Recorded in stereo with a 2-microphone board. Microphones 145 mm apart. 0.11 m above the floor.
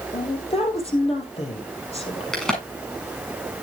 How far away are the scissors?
No scissors in this recording.